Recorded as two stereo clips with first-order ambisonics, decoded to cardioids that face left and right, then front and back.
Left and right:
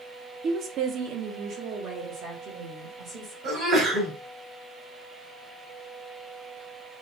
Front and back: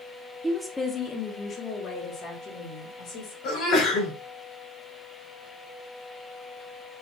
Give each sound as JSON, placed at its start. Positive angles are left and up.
{"t": 0.4, "sound": "a woman speaking", "azimuth_deg": -105, "distance_m": 0.6}
{"t": 3.4, "sound": "a sneeze", "azimuth_deg": -35, "distance_m": 3.5}